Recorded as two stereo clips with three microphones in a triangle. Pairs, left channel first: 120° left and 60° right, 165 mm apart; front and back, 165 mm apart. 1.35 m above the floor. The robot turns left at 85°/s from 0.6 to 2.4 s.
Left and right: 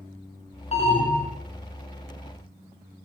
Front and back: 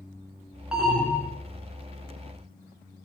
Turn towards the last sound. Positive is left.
turn(degrees=-45)